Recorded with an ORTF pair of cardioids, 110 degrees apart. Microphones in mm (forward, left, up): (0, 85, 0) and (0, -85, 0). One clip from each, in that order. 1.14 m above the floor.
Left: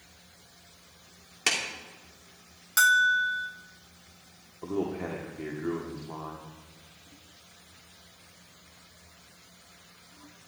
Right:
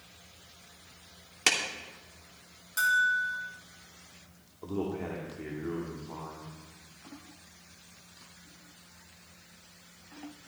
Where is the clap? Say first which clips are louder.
Right 1 dB; 10° right, 2.5 m.